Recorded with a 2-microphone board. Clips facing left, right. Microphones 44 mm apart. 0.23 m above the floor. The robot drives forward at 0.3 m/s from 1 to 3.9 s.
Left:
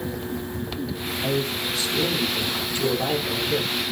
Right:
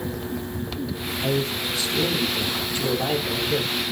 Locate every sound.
1.2 s a man speaking: 30° right (ahead or behind), 7 m; by 3.8 s 35° right (ahead or behind), 6 m